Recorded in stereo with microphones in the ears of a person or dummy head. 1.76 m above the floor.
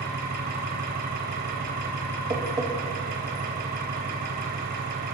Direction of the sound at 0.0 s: 55° right (ahead or behind).